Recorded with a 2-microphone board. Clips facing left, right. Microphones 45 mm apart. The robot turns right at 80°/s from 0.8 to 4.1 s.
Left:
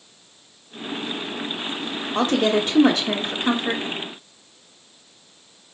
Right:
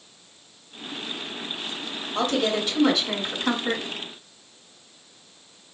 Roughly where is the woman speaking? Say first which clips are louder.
Left 4 dB; ahead left.